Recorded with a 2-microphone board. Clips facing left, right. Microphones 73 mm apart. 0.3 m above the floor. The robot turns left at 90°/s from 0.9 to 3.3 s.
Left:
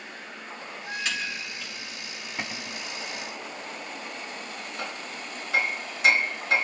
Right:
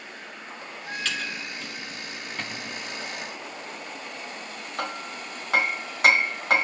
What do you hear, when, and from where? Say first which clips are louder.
1.1 s typing on a keyboard: right 2 dB; 20° left (ahead or behind), 5 m; by 1.7 s 40° right (ahead or behind), 5 m
2.4 s a cupboard door: left 1 dB; 15° left, 0.7 m; by 2.8 s 25° right, 0.7 m
4.8 s hammering: right 6 dB; 60° right (ahead or behind), 2 m